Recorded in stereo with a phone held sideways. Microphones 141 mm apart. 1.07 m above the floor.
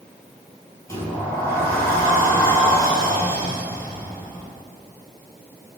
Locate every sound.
0.9 s a sliding door: 20° left (ahead or behind), 6 m